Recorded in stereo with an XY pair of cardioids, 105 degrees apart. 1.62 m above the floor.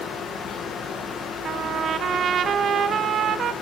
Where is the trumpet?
55° right, 0.9 m.